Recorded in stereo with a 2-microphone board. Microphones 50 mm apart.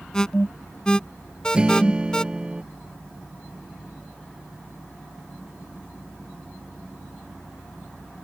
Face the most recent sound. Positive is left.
turn(degrees=-20)  # may be behind; listen again after turning